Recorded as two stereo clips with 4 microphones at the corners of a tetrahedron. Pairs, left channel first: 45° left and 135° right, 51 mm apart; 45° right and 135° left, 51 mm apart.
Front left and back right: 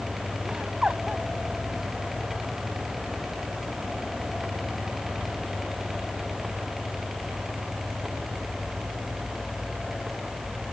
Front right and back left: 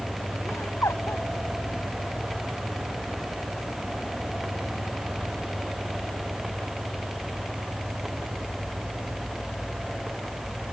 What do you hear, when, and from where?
0.5 s laughter: 60° right